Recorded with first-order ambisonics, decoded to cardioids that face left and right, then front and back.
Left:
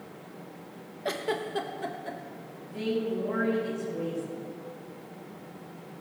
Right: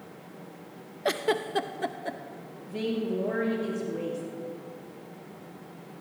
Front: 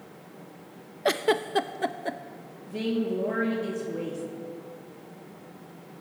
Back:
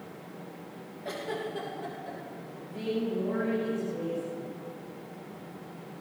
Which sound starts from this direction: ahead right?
A woman speaking, at 2.7 s.